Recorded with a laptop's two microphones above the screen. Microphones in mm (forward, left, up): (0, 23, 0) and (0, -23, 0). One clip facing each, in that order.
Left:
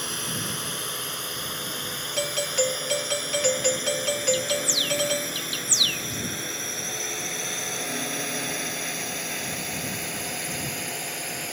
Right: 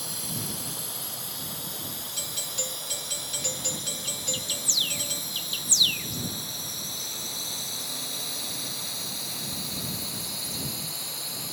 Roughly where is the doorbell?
Left.